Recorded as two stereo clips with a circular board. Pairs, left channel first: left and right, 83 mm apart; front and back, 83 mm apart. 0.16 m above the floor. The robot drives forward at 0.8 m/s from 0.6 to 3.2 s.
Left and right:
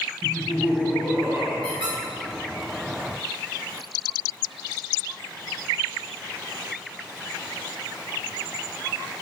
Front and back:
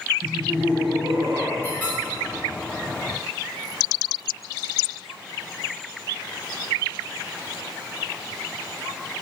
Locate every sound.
0.2 s laughter: 140° right, 1.2 m; by 1.5 s 160° right, 1.7 m
1.6 s a squeak: 70° right, 2.5 m; by 2.0 s 75° right, 2 m